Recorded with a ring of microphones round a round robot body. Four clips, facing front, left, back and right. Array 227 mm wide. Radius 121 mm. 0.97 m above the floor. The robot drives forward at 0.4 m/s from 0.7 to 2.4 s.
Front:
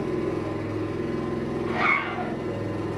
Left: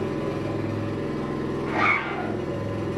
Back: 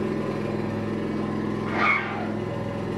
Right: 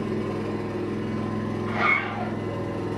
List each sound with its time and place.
0.0 s an engine running: 170° left, 1.0 m; by 3.0 s 175° left, 1.7 m
1.7 s a zipper: 140° left, 0.8 m; by 2.3 s 150° left, 1.0 m